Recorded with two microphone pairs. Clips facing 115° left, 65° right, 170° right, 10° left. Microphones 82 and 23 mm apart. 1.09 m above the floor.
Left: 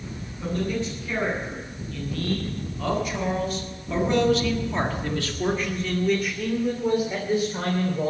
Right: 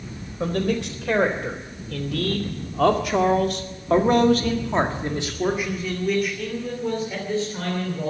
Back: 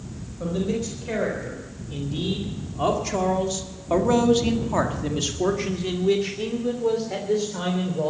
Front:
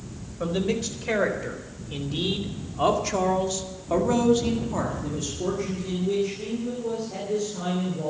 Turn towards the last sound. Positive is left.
turn(degrees=-175)